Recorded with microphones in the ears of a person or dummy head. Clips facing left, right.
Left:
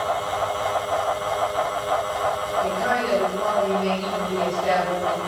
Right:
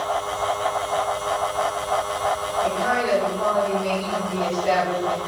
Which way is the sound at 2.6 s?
45° left (ahead or behind).